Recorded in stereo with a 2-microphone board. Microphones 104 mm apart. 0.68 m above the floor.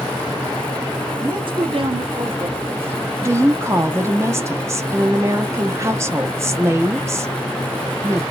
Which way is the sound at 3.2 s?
25° right (ahead or behind).